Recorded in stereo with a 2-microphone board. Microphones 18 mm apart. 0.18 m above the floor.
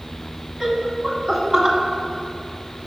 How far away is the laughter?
About 1.2 m.